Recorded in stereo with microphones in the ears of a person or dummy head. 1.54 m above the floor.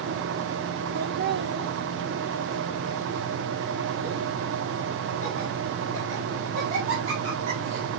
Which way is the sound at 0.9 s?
45° right (ahead or behind).